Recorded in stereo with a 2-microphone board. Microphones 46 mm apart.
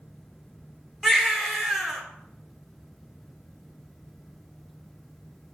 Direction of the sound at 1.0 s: 5° right (ahead or behind).